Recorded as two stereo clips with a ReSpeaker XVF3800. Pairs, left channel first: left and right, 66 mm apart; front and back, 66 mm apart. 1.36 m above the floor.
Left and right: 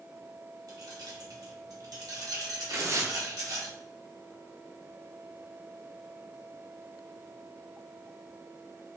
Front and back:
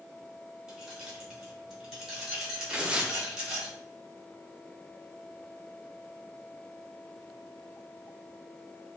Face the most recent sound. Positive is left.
turn(degrees=-110)